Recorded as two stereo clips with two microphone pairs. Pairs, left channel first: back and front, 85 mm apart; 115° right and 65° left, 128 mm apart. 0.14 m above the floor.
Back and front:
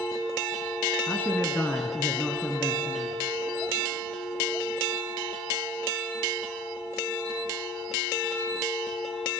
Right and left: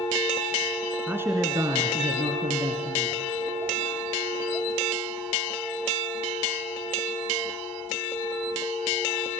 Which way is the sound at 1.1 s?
135° left.